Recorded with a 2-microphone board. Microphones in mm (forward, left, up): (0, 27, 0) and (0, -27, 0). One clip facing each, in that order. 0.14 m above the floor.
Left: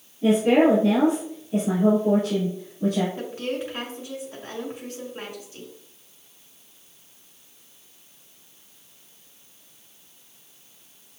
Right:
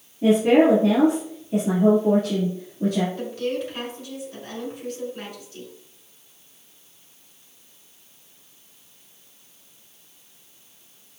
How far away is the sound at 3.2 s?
About 1.7 m.